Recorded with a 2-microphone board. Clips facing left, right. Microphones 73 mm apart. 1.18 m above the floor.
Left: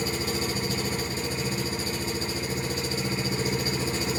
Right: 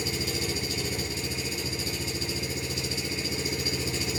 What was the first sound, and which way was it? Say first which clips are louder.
An engine running: left 3 dB; 45° left (ahead or behind).